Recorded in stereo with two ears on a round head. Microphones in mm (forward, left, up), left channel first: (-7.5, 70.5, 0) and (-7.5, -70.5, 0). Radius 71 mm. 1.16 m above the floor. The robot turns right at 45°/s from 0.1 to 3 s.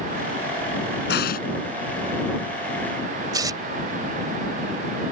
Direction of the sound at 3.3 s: 20° right (ahead or behind).